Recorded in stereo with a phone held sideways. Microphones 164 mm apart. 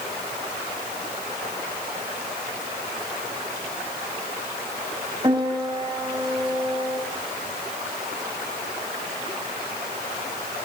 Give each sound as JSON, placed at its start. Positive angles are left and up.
{"t": 5.2, "sound": "a piano", "side_deg": -25, "distance_m": 5.5}